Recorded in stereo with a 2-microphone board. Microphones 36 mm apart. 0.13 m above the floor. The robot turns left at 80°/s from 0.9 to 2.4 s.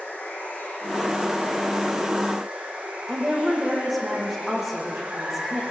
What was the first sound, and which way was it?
Running water, 85° left.